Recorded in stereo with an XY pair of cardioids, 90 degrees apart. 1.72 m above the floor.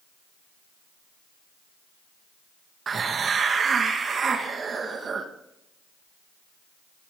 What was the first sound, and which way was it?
A hiss, 50° right.